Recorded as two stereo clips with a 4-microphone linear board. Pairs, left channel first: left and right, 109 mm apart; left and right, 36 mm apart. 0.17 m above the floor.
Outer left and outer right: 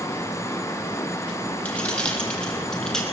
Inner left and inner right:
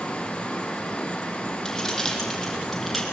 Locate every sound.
1.6 s keys jangling: 15° left (ahead or behind), 5 m; by 3.0 s 5° left (ahead or behind), 4.5 m